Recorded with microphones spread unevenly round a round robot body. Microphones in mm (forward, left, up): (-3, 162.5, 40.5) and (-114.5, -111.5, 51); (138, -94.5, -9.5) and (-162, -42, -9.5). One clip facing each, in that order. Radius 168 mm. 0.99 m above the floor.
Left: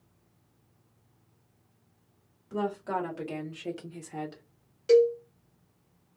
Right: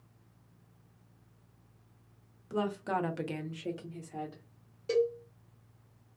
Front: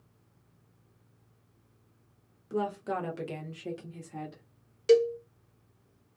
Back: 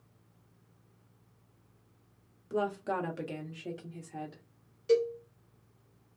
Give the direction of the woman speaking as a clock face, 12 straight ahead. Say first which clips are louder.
Left 2 dB, front 1 dB; 3 o'clock.